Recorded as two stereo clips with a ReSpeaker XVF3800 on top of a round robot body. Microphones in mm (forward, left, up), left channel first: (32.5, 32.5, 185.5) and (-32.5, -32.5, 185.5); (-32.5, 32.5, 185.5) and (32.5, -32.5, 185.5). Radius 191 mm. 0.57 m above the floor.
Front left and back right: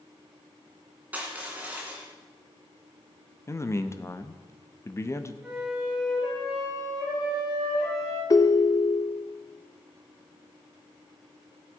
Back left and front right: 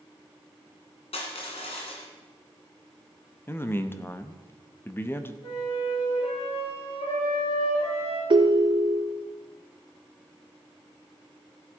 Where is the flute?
145° left, 7 m.